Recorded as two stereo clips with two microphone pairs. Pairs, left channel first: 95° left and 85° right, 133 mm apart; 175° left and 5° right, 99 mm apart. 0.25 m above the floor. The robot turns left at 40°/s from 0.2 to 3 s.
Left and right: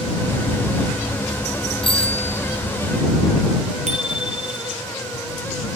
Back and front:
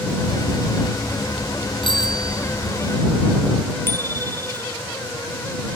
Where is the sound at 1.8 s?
140° left; by 2.8 s 105° left.